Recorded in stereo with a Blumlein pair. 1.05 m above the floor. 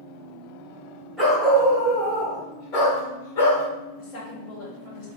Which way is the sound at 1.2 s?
5° left.